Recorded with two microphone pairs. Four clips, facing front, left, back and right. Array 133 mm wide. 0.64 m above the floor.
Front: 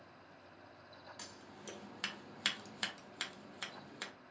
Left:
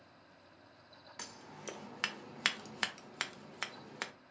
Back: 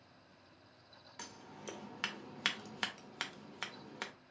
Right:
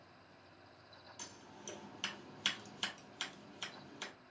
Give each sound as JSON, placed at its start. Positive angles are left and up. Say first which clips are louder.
{"t": 1.2, "sound": "scissors", "louder": "left 7 dB, back 2 dB", "azimuth_deg": 115, "distance_m": 0.5}